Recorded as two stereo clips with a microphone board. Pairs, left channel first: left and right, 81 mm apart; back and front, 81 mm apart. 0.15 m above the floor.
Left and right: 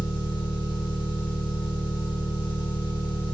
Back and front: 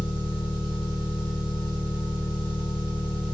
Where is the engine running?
80° left, 2.5 m.